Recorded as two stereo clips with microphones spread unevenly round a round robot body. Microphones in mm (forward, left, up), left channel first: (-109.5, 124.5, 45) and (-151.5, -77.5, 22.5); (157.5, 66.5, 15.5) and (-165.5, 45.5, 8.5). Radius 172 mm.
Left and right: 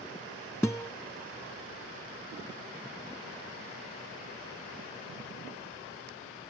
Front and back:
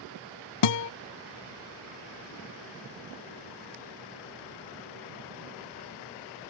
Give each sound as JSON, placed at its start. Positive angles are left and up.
{"t": 0.6, "sound": "a guitar", "azimuth_deg": -5}